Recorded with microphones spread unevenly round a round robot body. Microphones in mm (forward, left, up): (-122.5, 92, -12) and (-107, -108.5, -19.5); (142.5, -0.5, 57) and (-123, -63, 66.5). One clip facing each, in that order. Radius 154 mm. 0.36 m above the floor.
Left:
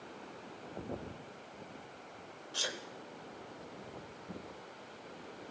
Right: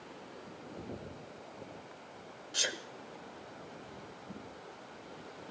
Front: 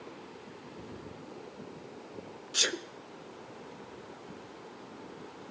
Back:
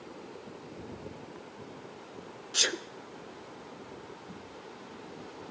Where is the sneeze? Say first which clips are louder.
Right 2 dB, even; 65° right, 0.9 m.